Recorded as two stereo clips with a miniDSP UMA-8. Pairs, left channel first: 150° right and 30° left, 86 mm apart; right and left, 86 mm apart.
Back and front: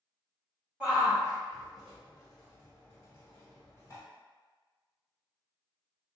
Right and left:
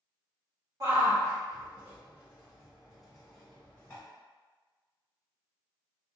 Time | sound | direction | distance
0.8 | a shout | 100° left | 1.8 m